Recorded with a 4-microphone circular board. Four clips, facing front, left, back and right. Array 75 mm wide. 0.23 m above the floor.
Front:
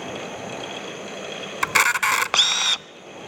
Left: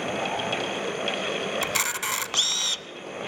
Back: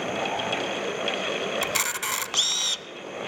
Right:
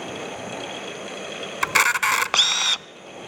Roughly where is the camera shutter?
Ahead right.